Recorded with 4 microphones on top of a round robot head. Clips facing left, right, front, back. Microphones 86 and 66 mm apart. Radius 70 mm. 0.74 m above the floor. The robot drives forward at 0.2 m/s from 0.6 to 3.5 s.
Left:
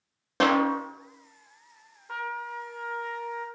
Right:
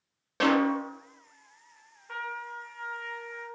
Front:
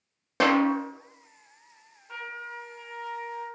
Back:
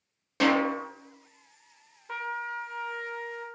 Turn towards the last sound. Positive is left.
turn(degrees=170)